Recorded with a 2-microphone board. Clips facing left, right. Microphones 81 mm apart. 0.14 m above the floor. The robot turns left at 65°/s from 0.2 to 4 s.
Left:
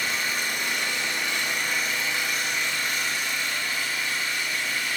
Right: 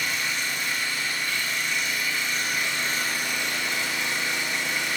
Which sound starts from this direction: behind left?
An engine running, at 0.0 s.